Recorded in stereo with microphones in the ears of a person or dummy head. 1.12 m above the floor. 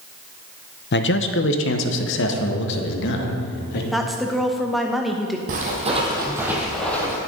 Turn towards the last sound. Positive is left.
turn(degrees=15)  # may be behind; listen again after turning